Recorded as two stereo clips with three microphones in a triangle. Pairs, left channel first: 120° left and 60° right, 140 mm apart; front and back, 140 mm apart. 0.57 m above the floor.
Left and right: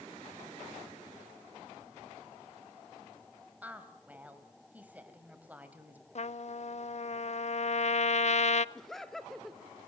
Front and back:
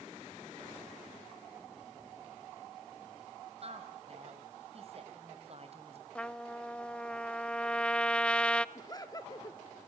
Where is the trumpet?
80° left, 0.6 m.